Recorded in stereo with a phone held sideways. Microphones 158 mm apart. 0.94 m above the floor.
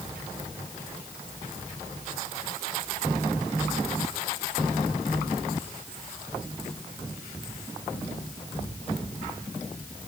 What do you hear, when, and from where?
Only background noise.